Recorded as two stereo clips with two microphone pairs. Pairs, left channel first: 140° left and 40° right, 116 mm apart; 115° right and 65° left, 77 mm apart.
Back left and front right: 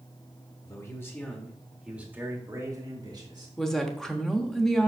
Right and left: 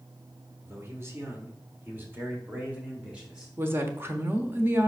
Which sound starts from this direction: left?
A man speaking, at 0.6 s.